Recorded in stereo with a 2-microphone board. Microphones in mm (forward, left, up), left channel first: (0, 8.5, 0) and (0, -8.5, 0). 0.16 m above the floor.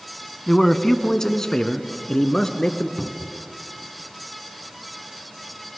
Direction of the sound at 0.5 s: 15° left (ahead or behind).